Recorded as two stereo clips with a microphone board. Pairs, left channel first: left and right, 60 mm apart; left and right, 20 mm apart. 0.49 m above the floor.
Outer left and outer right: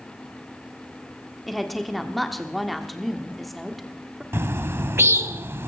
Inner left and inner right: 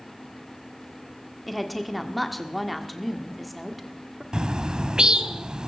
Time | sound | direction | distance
1.5 | a woman speaking | centre (ahead or behind) | 1.3 m
4.3 | a bird | 45° right (ahead or behind) | 0.6 m